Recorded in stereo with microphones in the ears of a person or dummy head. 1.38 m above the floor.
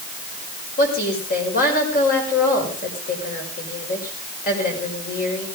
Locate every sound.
0.8 s a woman speaking: 50° left (ahead or behind), 6 m